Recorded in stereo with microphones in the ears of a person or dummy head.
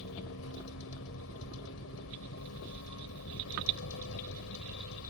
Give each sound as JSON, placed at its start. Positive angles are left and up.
{"t": 0.0, "sound": "a vehicle", "side_deg": 75}